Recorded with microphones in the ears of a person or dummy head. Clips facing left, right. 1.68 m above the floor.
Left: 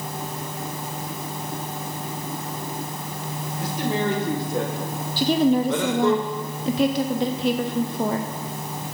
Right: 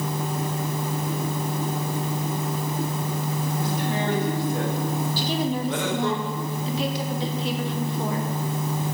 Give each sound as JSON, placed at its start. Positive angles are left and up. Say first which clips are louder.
{"t": 3.6, "sound": "a man speaking", "louder": "left 5 dB", "side_deg": 60, "distance_m": 2.0}
{"t": 5.2, "sound": "a woman speaking", "louder": "left 11 dB", "side_deg": 50, "distance_m": 0.5}